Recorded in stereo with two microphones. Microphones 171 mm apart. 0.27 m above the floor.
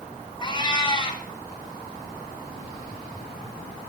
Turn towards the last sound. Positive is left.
turn(degrees=30)  # may be behind; listen again after turning